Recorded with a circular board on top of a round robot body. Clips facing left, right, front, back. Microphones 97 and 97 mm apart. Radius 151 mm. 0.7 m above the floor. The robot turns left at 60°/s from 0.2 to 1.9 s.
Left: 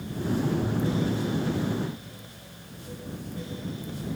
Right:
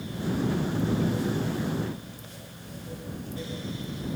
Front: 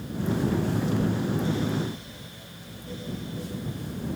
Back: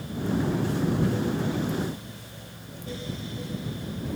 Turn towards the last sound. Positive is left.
No sound to turn to.